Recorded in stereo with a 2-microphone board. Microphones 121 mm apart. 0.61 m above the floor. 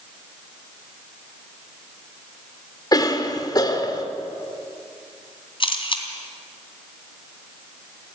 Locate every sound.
2.9 s a cough: 35° left (ahead or behind), 2 m
5.6 s a camera shutter: 45° left (ahead or behind), 2.5 m